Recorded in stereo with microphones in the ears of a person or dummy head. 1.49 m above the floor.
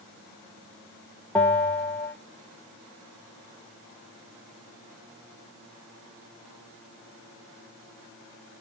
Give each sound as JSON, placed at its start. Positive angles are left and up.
{"t": 1.4, "sound": "a bell", "side_deg": 10, "distance_m": 0.9}